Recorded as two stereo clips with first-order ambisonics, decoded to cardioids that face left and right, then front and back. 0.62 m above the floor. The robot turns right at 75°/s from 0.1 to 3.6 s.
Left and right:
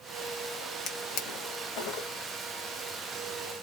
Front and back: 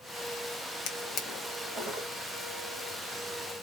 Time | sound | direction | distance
0.9 | a drawer | 30° left | 1.1 m